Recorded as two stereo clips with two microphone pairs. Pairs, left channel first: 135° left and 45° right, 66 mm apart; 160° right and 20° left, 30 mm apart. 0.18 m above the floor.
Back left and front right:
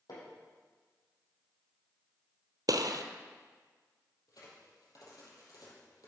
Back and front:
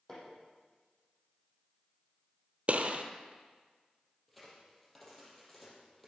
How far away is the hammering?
About 6.5 m.